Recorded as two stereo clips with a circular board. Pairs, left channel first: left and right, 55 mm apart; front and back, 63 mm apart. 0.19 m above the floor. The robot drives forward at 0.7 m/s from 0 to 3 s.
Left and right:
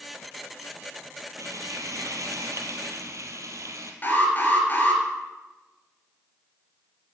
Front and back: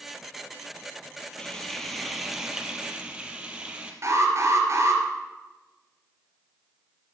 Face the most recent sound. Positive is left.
turn(degrees=145)